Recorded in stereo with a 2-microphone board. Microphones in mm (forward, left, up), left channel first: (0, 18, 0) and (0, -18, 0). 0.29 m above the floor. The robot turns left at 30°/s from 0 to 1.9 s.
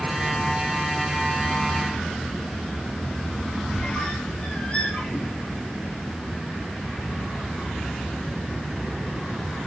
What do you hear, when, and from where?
3.7 s a squeak: 35° left (ahead or behind), 0.8 m